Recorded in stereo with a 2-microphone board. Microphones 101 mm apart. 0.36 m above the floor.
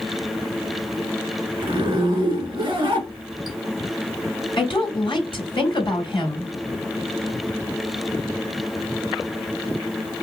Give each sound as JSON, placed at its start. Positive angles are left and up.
{"t": 1.6, "sound": "a zipper", "side_deg": -45, "distance_m": 2.5}
{"t": 4.6, "sound": "a woman speaking", "side_deg": 55, "distance_m": 2.5}